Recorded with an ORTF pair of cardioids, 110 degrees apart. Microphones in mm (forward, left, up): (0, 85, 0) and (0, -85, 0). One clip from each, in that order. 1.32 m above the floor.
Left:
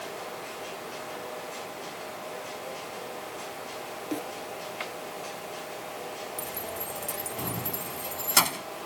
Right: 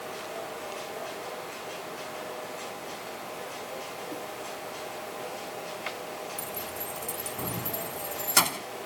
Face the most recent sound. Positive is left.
turn(degrees=5)